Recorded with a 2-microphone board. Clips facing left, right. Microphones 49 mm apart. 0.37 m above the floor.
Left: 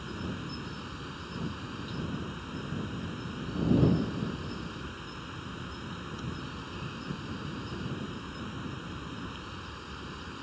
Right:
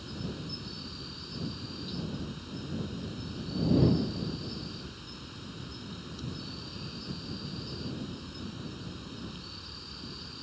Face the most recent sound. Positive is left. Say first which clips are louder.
# left 2 dB
turn(degrees=35)  # may be behind; listen again after turning